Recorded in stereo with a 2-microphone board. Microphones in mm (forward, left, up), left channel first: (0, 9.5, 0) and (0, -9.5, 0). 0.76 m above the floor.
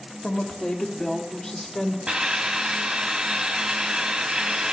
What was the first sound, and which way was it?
A woman speaking, 55° left (ahead or behind).